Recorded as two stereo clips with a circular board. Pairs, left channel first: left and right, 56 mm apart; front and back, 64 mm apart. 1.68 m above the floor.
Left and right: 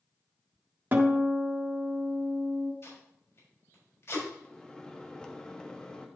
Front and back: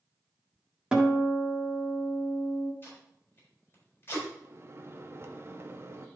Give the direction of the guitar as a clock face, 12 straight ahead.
4 o'clock.